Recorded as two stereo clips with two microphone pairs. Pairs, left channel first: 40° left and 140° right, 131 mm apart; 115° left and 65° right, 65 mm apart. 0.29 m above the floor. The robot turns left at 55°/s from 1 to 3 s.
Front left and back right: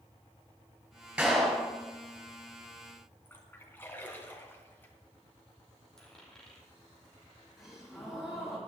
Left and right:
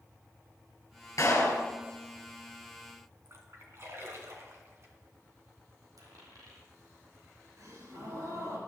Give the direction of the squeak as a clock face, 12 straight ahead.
No squeak in this recording.